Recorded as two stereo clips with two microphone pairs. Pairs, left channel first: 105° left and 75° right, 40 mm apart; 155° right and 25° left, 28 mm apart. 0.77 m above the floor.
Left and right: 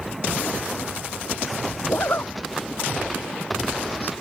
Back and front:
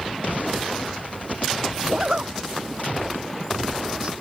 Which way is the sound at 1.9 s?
80° left.